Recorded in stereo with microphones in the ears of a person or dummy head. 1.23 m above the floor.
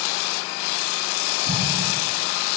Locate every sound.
1.5 s an explosion: 55° right (ahead or behind), 7.5 m